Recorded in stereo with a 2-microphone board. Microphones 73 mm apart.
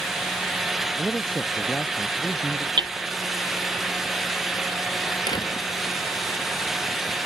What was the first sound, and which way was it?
A man speaking, 20° left (ahead or behind).